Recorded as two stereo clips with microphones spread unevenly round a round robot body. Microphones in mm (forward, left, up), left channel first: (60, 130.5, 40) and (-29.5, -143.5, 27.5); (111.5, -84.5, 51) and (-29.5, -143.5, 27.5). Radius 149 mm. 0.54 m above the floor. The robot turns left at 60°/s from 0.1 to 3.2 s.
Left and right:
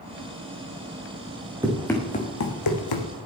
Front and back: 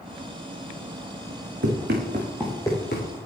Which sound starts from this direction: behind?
Running footsteps, at 1.6 s.